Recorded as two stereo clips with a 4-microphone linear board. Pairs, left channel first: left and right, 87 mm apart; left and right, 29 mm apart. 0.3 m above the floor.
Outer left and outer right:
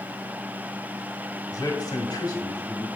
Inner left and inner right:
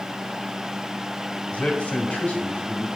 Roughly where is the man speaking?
Left.